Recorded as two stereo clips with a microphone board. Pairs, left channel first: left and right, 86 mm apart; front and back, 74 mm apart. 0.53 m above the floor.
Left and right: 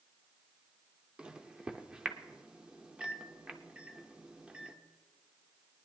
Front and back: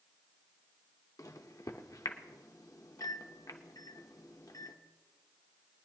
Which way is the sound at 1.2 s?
15° right.